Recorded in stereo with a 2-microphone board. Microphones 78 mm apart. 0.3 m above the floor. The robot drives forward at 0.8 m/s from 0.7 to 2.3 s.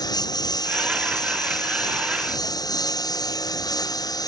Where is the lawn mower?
55° left (ahead or behind).